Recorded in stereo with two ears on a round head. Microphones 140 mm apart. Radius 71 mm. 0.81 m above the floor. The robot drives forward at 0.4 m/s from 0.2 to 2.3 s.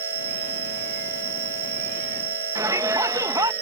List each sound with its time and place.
0.0 s an insect: 65° right (ahead or behind); by 3.6 s 75° right (ahead or behind)
2.5 s a shout: 20° right (ahead or behind)